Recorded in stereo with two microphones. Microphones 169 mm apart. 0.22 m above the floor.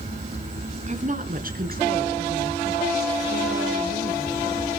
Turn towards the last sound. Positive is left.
turn(degrees=-80)